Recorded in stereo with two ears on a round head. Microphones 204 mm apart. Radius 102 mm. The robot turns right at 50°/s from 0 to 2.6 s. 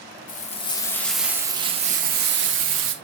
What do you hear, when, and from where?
0.3 s frying: 135° left, 1.2 m; by 3.0 s 105° right, 1.2 m